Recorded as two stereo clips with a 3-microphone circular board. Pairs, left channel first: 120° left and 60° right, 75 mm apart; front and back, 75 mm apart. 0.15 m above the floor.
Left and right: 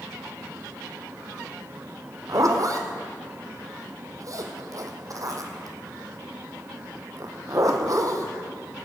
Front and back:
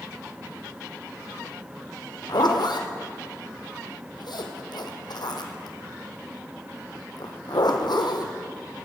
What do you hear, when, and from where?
2.3 s a zipper: 20° right, 1.8 m